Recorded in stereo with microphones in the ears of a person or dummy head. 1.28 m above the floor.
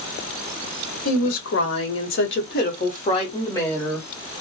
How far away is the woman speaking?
About 1.4 m.